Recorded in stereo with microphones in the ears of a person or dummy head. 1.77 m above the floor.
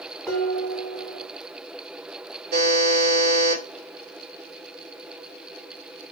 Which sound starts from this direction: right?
A buzzer, at 2.5 s.